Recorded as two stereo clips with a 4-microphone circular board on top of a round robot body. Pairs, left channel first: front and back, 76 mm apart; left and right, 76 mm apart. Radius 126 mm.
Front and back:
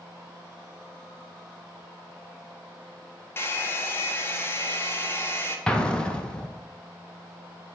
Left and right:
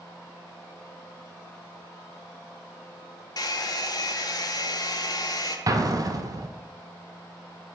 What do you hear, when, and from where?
3.4 s a hair dryer: 60° left, 0.6 m
5.7 s an explosion: 75° right, 0.7 m